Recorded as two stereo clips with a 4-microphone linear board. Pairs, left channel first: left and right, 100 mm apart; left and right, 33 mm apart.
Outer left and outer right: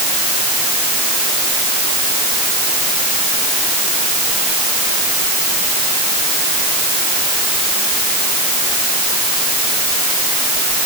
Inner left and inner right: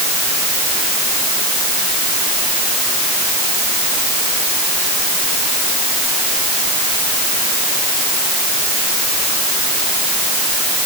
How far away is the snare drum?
I don't hear a snare drum.